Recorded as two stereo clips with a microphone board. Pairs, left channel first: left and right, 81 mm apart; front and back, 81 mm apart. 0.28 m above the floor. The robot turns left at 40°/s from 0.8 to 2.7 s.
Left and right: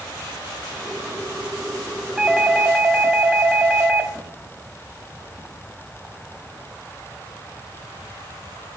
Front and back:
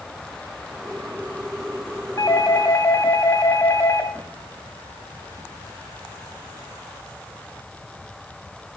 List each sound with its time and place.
2.2 s a doorbell: 10° right, 1.8 m; by 4.1 s 30° right, 1.8 m